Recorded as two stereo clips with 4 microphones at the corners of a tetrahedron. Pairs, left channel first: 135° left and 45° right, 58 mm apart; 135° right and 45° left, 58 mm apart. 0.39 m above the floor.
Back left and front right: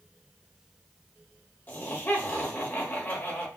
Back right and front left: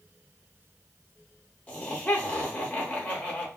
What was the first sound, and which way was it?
Laughter, 165° left.